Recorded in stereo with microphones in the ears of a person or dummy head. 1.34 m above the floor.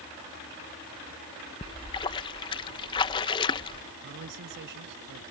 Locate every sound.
1.6 s a splash: 30° left (ahead or behind)
4.0 s a man speaking: 55° right (ahead or behind)